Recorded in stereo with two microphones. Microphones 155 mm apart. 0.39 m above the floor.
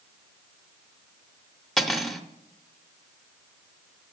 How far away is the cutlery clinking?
About 0.6 m.